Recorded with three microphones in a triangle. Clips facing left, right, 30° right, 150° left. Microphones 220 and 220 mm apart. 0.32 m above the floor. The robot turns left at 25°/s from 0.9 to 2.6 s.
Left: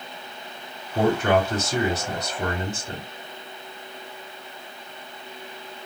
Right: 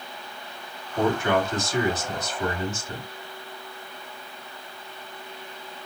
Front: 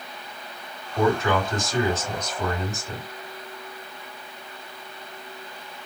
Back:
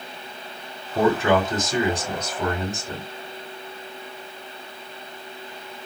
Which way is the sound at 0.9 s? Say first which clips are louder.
Left 2 dB, back 3 dB; 100° left.